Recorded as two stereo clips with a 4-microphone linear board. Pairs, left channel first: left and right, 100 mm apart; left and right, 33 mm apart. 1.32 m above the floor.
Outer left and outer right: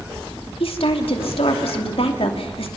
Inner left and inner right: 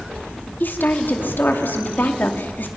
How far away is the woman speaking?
About 2.5 m.